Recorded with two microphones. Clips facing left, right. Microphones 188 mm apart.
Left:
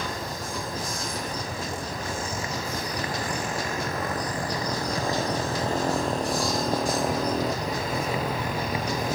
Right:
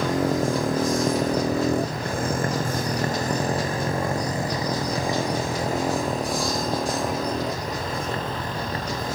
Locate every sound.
0.0 s a motorcycle: 85° right; by 9.2 s 15° left (ahead or behind)